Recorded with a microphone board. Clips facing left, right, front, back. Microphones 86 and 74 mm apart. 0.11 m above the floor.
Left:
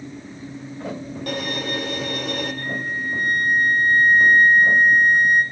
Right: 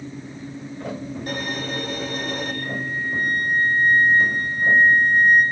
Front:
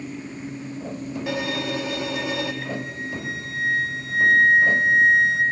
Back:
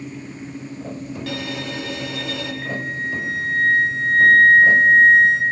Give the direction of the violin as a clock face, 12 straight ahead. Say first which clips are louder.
Left 2 dB, front 4 dB; 10 o'clock.